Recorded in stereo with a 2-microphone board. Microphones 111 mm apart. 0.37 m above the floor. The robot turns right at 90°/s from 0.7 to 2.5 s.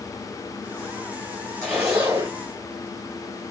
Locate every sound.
1.6 s a zipper: 175° left, 2 m; by 2.4 s 120° right, 2 m